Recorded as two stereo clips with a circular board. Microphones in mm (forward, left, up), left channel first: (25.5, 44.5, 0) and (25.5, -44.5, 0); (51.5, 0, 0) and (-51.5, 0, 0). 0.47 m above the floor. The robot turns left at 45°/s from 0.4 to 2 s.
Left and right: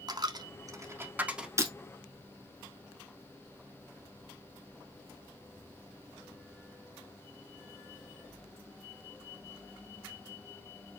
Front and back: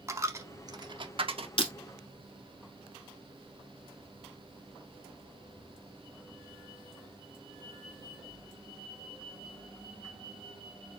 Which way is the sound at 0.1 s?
120° right.